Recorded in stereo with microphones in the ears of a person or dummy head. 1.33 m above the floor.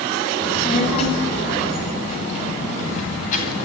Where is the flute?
I don't hear a flute.